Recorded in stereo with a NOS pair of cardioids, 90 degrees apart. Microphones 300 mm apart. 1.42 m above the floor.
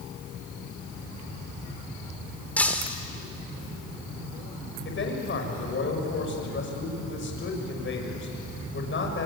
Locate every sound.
2.6 s breaking glass: 5° left, 2.5 m
4.8 s a man speaking: 40° left, 7 m